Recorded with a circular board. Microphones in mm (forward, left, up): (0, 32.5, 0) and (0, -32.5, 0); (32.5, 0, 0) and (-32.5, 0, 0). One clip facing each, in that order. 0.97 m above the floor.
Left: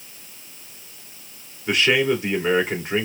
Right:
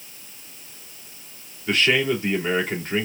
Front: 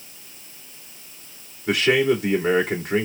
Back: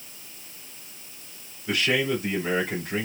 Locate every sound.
1.7 s a man speaking: 15° left, 2 m